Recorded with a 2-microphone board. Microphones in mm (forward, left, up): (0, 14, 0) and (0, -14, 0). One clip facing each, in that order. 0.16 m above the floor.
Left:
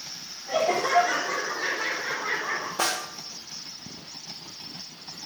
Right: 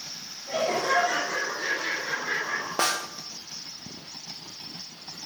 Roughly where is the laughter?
Centre.